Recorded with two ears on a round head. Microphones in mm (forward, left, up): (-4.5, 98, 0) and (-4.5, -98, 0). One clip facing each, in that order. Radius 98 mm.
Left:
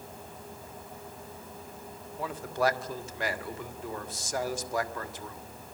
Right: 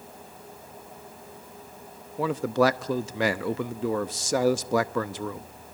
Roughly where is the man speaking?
Right.